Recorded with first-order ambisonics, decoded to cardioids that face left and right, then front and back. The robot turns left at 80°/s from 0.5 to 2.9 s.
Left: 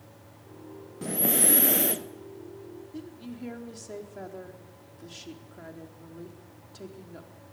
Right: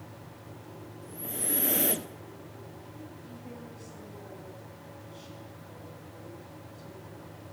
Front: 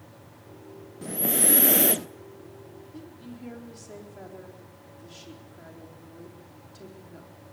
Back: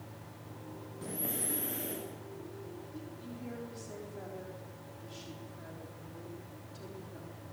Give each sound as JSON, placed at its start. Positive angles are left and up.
{"t": 1.0, "sound": "breathing", "azimuth_deg": 70, "distance_m": 0.6}
{"t": 2.9, "sound": "a woman speaking", "azimuth_deg": 75, "distance_m": 4.0}